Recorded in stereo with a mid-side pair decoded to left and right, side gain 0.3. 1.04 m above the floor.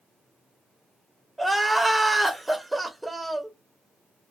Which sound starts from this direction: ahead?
Crying, at 1.4 s.